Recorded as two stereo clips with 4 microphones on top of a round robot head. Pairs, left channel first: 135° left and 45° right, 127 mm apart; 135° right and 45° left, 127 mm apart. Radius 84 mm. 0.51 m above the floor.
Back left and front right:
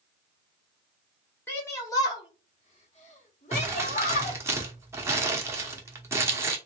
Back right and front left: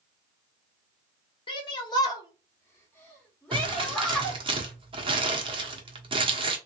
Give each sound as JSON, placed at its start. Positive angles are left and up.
{"t": 1.5, "sound": "a shout", "azimuth_deg": -160, "distance_m": 1.5}
{"t": 3.5, "sound": "crumpling", "azimuth_deg": 15, "distance_m": 1.4}